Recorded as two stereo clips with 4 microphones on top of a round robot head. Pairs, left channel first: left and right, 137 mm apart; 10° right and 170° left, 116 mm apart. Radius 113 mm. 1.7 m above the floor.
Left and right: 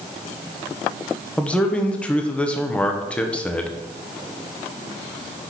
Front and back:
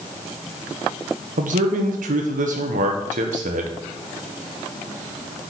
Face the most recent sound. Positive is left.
turn(degrees=170)